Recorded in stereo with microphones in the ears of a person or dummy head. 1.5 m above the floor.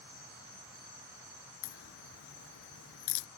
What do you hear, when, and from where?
1.6 s a crack: 70° left (ahead or behind)